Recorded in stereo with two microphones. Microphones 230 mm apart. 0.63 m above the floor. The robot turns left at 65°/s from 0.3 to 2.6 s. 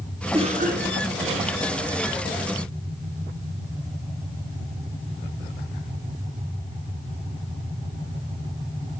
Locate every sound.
0.3 s a cough: 25° right, 1.2 m; by 1.6 s 105° right, 1.2 m